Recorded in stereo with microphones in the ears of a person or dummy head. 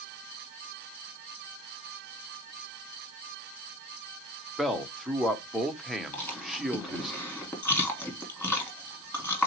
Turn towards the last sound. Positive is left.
turn(degrees=10)  # may be behind; listen again after turning